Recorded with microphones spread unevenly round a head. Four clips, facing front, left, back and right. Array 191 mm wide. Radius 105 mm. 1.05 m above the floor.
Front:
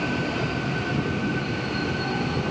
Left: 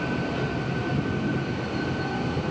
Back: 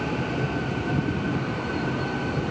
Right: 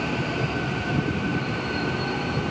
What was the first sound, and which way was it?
Only background noise.